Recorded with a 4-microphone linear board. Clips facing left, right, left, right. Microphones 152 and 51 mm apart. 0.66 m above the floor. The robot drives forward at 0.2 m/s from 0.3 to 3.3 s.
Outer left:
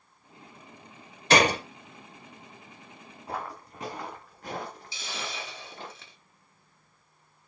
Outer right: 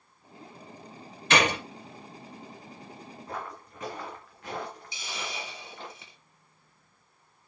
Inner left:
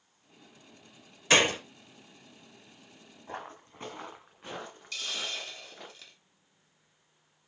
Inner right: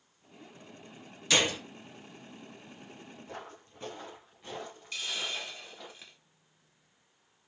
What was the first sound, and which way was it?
A gunshot, 35° left (ahead or behind).